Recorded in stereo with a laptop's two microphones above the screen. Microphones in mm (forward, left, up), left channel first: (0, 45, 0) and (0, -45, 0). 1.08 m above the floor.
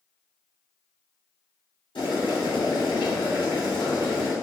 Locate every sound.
1.9 s boiling: 80° left, 1.7 m